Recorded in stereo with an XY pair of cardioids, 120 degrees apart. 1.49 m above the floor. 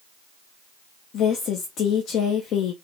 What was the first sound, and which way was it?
A woman speaking, 70° left.